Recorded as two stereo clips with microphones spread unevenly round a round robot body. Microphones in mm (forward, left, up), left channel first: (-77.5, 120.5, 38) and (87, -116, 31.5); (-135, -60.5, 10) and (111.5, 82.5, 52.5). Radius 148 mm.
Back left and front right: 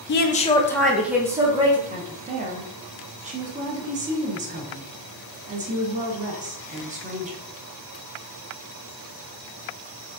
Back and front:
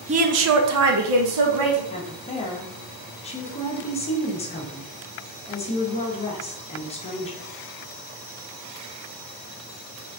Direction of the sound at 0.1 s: 100° left.